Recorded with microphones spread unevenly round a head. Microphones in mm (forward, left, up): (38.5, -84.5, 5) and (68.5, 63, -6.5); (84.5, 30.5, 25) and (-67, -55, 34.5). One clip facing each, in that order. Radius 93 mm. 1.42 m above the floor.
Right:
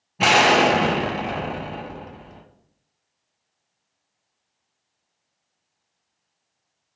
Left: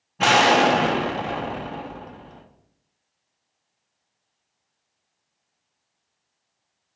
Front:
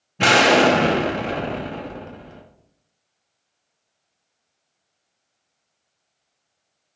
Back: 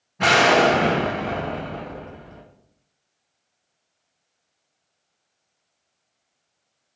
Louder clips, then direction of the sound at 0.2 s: Even, front 2 dB; 25° right.